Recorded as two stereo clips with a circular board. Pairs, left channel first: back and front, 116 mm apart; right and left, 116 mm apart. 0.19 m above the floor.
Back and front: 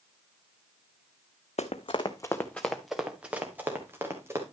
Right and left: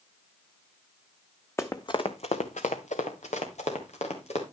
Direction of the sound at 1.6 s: 160° right.